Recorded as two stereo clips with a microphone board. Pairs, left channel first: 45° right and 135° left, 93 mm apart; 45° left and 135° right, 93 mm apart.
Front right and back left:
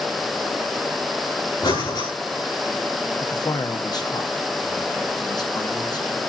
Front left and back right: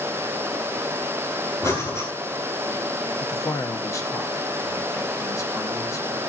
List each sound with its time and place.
1.6 s breathing: 15° right, 6 m
3.2 s a man speaking: 5° right, 1.0 m